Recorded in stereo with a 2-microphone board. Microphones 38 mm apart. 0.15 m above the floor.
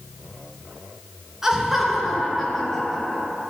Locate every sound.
1.4 s laughter: 10° right (ahead or behind), 2 m; by 3.3 s 10° left (ahead or behind), 3 m